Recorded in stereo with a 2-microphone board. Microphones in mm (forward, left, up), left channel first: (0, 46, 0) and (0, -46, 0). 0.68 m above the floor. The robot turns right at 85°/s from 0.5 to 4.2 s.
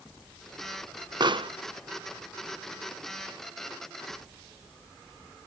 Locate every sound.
1.2 s a pop: 50° right (ahead or behind), 0.6 m; by 1.6 s 65° right (ahead or behind), 0.6 m